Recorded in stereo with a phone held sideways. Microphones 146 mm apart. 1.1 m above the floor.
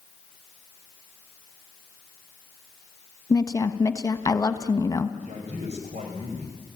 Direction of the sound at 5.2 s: 50° right (ahead or behind).